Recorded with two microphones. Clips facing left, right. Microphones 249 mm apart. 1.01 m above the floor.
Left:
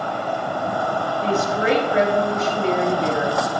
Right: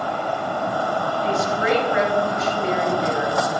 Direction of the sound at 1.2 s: 35° left (ahead or behind).